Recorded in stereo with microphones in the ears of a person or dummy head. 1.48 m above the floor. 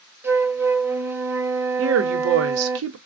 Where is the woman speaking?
75° right (ahead or behind), 0.6 m.